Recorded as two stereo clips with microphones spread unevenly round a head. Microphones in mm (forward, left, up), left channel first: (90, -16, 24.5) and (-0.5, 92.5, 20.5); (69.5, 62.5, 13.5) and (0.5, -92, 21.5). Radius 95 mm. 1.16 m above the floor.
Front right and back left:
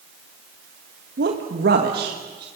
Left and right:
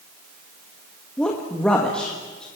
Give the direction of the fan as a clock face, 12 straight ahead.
No fan in this recording.